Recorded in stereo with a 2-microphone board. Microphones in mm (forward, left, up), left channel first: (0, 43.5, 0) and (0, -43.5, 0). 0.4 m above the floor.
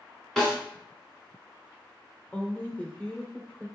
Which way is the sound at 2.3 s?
15° left (ahead or behind).